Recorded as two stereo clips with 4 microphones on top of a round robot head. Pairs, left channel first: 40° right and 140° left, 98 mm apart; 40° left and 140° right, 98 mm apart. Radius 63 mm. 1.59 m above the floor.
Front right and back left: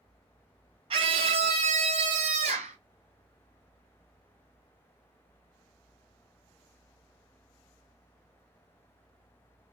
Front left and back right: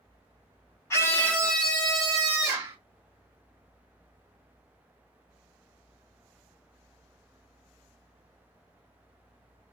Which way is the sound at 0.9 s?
105° left.